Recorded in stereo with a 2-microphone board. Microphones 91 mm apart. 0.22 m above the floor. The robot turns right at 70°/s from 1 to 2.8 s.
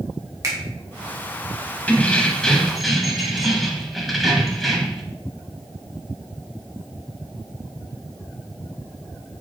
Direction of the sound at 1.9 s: 15° left (ahead or behind).